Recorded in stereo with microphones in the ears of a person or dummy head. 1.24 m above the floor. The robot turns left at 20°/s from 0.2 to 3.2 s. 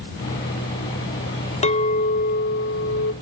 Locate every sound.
1.6 s a clink: 140° left, 0.6 m; by 3.1 s 110° left, 0.6 m